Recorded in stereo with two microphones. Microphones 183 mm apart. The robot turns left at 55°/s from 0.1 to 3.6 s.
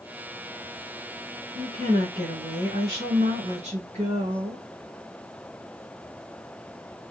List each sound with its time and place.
1.6 s a woman speaking: 30° right, 4 m; by 4.7 s 140° right, 4 m